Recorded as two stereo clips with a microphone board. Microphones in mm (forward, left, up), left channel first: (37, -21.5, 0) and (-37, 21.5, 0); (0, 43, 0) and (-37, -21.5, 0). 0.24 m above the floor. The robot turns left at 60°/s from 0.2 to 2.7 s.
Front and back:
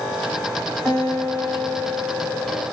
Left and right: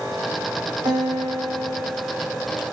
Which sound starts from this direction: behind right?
A guitar, at 0.8 s.